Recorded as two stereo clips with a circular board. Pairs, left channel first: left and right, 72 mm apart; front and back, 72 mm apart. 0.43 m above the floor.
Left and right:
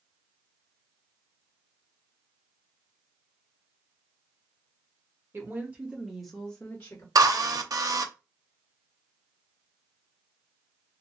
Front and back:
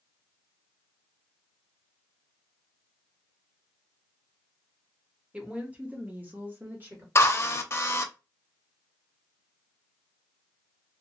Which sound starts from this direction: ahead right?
A drill, at 7.2 s.